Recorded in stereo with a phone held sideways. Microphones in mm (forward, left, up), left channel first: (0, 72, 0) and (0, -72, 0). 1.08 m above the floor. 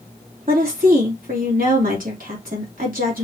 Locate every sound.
0.5 s a woman speaking: 75° right (ahead or behind), 2.5 m